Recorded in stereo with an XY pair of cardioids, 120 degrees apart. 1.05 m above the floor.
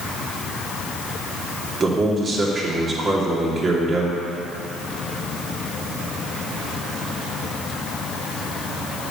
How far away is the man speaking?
About 2.5 m.